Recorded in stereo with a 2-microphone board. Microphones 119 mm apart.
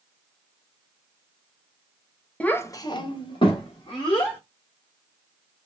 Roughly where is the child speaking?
Centre.